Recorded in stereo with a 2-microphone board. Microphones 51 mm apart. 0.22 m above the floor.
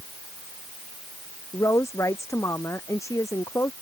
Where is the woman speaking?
80° left.